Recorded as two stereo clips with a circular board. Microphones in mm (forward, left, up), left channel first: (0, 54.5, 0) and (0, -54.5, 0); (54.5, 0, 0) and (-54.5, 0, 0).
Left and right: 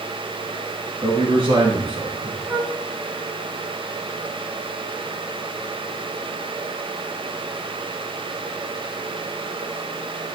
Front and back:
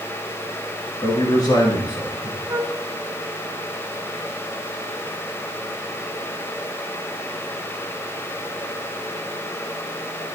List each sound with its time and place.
1.0 s a man speaking: 50° right, 7 m; by 2.4 s 60° right, 7 m
2.5 s a flute: 155° right, 0.9 m